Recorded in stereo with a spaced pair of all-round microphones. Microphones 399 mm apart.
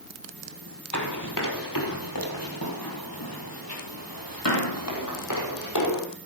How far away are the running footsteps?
About 3.5 m.